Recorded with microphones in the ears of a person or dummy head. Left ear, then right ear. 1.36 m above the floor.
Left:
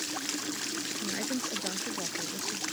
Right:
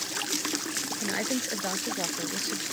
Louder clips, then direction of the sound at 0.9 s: Right 4 dB; 30° right (ahead or behind).